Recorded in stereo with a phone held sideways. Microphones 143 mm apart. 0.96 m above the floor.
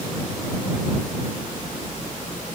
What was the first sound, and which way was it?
Only background noise.